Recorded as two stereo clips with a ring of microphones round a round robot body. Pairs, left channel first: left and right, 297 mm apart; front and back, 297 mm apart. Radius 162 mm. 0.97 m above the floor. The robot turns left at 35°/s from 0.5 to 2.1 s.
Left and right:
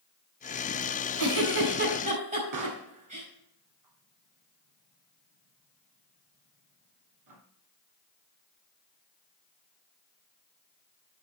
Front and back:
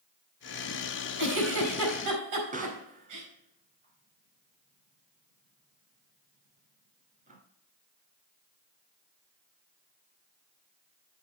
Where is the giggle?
130° right, 4.5 m; by 3.3 s 160° right, 4.5 m.